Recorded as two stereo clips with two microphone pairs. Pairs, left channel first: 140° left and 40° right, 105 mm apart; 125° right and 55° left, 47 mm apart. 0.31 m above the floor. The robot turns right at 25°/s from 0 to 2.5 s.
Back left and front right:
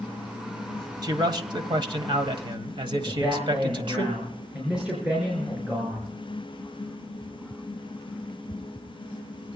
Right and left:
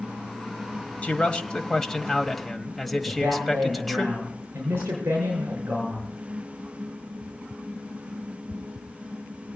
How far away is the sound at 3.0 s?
About 5.5 m.